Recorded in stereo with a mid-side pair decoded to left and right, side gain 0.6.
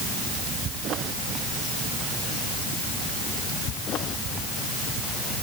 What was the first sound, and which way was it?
Only background noise.